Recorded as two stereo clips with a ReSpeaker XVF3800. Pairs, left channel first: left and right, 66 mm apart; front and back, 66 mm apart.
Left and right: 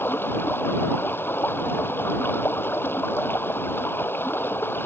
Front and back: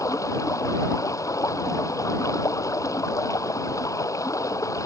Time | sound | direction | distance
0.0 | running water | 35° left | ?